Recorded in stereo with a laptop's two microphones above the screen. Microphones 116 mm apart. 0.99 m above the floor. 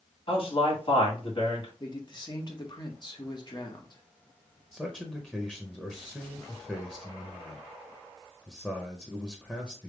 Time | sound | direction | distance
0.3 | a man speaking | 50° left (ahead or behind) | 2.5 m
1.8 | a man speaking | 40° left (ahead or behind) | 1.4 m
4.7 | a man speaking | 10° left (ahead or behind) | 0.6 m